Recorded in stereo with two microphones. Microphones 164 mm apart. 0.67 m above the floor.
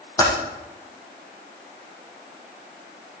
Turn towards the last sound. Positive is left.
turn(degrees=20)  # may be behind; listen again after turning